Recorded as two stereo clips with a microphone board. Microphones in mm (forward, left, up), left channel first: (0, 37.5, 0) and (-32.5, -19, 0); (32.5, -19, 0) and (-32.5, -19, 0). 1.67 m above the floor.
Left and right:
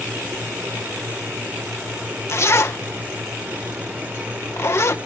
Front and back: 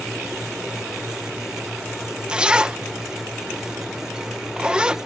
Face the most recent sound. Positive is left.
turn(degrees=105)